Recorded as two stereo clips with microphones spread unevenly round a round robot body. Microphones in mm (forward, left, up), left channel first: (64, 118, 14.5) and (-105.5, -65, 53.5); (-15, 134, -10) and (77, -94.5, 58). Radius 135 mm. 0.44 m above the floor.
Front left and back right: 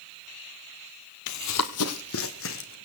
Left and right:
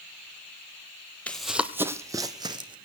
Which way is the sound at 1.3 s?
20° left.